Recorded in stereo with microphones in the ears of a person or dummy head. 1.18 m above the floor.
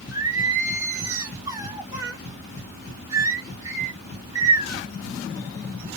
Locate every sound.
0.1 s singing: 15° right (ahead or behind), 0.5 m